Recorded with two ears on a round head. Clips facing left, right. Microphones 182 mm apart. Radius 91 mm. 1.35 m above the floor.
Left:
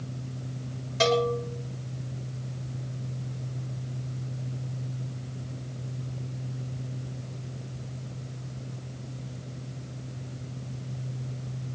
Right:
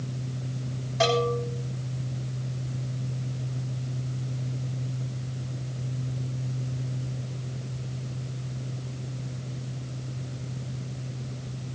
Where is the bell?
35° left (ahead or behind), 6.5 m.